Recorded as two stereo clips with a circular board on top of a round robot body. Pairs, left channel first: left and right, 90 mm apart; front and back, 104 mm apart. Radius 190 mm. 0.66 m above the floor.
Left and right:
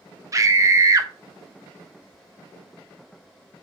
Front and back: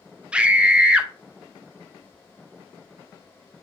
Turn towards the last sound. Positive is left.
turn(degrees=-105)